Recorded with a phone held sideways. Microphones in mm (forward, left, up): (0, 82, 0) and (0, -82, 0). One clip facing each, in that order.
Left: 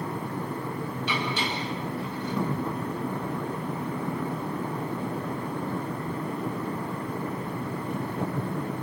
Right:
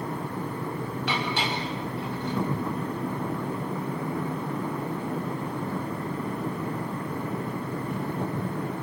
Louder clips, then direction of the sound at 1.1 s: Right 1 dB; 70° right (ahead or behind).